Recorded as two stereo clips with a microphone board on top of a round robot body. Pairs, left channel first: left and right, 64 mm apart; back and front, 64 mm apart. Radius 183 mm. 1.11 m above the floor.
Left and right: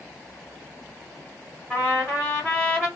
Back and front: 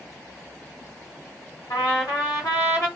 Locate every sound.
1.7 s a trumpet: 155° left, 1.0 m